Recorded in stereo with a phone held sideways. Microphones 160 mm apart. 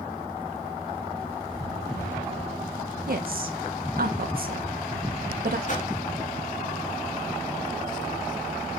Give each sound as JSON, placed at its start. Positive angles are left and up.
{"t": 3.1, "sound": "a woman speaking", "side_deg": -70, "distance_m": 1.9}
{"t": 5.7, "sound": "a whoosh", "side_deg": 50, "distance_m": 1.7}